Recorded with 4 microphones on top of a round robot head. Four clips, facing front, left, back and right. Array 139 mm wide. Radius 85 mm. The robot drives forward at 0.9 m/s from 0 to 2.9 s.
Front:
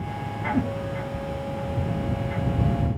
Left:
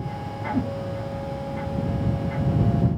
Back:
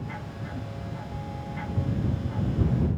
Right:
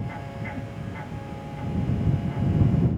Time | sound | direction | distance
0.5 | a whoosh | 40° left | ?